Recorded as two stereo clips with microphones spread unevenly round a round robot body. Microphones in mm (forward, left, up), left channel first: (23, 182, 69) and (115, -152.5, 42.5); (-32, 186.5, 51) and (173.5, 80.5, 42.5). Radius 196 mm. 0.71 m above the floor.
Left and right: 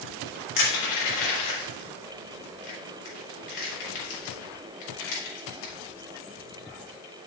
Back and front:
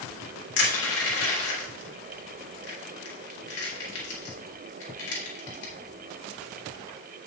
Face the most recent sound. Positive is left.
turn(degrees=145)